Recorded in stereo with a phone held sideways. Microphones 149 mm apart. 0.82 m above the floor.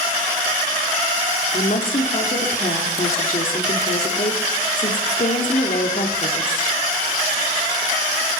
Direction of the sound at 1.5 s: 65° left (ahead or behind).